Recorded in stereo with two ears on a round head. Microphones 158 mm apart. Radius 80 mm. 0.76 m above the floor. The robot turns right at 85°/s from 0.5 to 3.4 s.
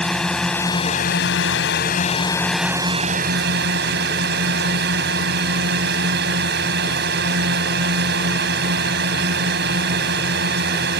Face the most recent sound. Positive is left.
turn(degrees=-110)